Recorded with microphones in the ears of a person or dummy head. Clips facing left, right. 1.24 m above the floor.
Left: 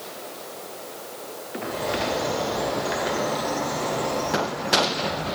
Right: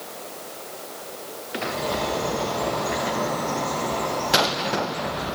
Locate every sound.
1.6 s a bird: 20° left (ahead or behind), 2.5 m